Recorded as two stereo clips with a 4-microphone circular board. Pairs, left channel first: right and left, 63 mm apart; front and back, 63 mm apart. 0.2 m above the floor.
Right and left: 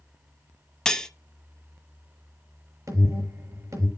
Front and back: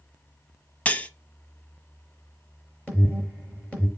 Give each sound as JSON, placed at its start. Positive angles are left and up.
{"t": 0.8, "sound": "cutlery clinking", "azimuth_deg": -25, "distance_m": 0.7}
{"t": 2.9, "sound": "an alarm", "azimuth_deg": 70, "distance_m": 5.5}